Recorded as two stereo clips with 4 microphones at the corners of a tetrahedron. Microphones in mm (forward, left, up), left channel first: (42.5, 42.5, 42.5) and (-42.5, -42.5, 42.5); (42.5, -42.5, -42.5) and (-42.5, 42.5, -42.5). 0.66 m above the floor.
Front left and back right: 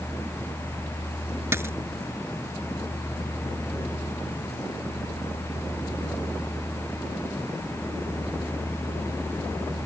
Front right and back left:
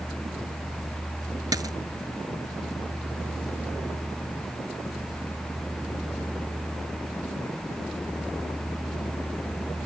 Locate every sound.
1.5 s a dropped coin: 170° left